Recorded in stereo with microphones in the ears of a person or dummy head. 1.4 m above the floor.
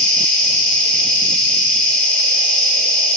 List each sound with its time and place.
0.0 s an insect: 5° left (ahead or behind), 1.3 m